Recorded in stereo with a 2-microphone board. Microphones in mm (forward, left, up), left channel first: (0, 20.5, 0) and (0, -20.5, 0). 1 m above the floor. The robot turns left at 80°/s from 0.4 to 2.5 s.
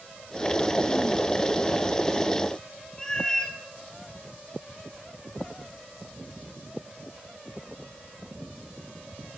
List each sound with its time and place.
3.0 s a cat meowing: 15° left (ahead or behind), 1.6 m